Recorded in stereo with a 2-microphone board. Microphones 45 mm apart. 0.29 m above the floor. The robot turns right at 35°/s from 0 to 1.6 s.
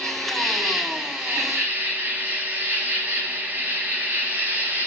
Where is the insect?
160° left, 2.5 m; by 4.9 s 145° right, 2.5 m.